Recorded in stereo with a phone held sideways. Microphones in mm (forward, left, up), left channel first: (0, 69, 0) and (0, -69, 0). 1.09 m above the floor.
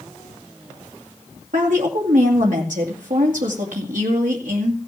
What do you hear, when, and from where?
1.5 s a woman speaking: 70° right (ahead or behind), 2.5 m